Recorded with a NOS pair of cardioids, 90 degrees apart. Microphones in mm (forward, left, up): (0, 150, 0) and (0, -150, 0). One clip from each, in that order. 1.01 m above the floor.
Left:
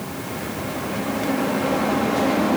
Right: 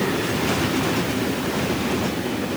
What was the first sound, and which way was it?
Only background noise.